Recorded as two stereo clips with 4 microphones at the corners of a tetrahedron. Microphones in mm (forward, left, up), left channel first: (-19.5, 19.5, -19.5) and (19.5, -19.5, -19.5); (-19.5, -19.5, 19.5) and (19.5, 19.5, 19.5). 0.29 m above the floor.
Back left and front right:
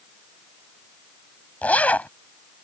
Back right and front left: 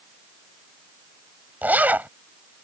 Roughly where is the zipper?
Left.